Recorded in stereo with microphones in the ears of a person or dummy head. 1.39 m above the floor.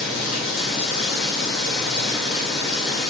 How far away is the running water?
About 3 m.